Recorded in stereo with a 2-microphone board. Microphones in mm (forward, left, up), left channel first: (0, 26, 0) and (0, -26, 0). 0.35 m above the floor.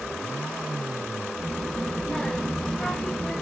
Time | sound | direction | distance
1.4 | a child speaking | 10° left (ahead or behind) | 0.6 m